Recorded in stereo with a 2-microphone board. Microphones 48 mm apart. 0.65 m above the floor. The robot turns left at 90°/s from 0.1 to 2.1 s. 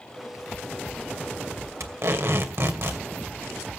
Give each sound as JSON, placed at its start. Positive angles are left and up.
{"t": 1.8, "sound": "tape being pulled", "side_deg": -75, "distance_m": 2.5}